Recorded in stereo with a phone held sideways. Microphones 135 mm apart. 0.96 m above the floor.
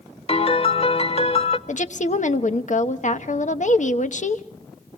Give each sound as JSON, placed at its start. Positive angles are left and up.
{"t": 0.3, "sound": "a piano", "side_deg": 45, "distance_m": 0.8}
{"t": 1.7, "sound": "a woman speaking", "side_deg": 60, "distance_m": 1.1}